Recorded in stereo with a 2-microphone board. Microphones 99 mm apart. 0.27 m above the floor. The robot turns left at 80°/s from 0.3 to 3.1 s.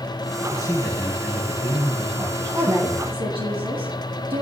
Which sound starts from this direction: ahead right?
A woman speaking, at 2.5 s.